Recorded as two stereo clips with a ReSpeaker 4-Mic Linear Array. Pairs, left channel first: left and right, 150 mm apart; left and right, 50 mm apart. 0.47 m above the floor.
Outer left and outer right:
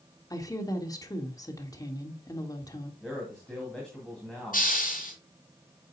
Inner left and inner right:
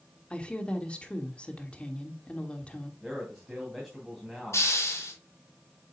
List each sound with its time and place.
0.3 s a woman speaking: 25° left (ahead or behind), 1.3 m
3.0 s a man speaking: 5° left (ahead or behind), 2.5 m
4.5 s a hiss: 70° left (ahead or behind), 4.5 m